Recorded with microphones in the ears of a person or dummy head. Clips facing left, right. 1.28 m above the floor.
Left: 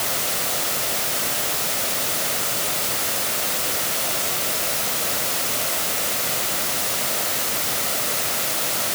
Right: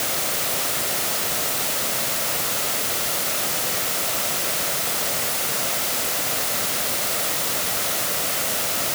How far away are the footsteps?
I don't hear footsteps.